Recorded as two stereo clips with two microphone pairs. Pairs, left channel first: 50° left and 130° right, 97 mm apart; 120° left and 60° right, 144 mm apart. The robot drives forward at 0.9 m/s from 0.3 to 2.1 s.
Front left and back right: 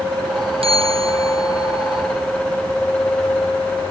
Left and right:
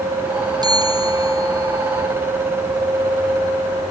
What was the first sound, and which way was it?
A bell, 125° right.